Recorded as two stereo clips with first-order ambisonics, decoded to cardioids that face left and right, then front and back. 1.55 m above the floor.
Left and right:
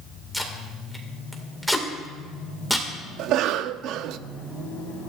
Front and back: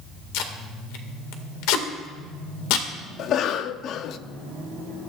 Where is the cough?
50° right, 0.6 m.